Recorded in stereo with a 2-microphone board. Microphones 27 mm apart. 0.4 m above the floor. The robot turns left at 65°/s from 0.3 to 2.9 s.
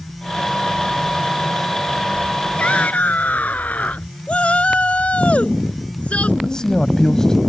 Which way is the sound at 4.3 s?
50° left (ahead or behind).